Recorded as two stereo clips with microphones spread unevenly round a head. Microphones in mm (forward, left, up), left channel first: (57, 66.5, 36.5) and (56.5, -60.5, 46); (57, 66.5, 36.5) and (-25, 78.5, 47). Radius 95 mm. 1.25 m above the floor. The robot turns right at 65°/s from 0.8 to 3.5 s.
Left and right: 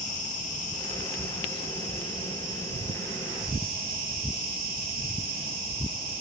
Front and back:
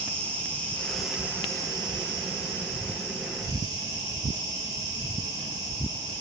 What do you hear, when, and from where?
0.0 s an insect: 65° left, 0.8 m; by 6.2 s 115° right, 0.8 m